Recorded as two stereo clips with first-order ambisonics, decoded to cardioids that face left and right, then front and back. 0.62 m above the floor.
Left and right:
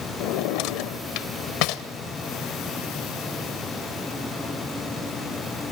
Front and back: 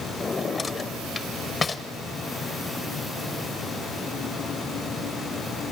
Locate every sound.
0.2 s a drawer: 70° left, 0.7 m